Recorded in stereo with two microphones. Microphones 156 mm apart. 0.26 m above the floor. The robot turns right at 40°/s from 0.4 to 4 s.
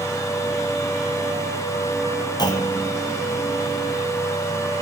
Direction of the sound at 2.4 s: 25° left (ahead or behind).